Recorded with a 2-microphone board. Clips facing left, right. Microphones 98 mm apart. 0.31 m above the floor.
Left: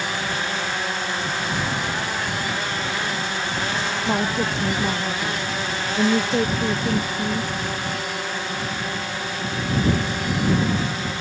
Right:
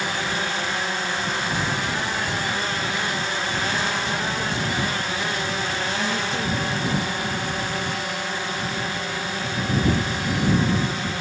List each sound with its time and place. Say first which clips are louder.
4.1 s a woman speaking: left 4 dB; 45° left (ahead or behind)